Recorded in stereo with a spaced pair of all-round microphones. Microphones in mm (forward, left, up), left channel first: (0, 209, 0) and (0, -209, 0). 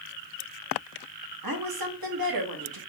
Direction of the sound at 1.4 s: 55° right (ahead or behind).